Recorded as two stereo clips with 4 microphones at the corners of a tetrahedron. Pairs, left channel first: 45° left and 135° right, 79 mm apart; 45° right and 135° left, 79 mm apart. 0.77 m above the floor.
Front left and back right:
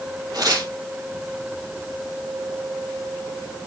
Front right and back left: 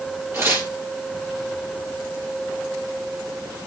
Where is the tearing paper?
165° right, 4.5 m.